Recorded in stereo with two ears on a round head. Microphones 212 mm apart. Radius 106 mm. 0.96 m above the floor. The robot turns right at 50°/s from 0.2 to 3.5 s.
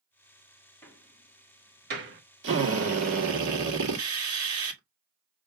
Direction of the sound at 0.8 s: 10° left (ahead or behind).